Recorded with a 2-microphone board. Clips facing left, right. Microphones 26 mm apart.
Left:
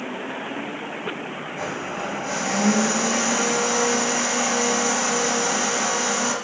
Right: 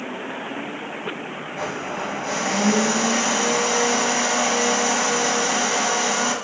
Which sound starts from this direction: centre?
A blender, at 1.6 s.